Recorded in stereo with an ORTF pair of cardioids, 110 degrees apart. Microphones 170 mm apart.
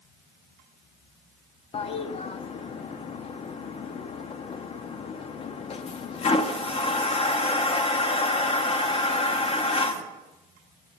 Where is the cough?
No cough in this recording.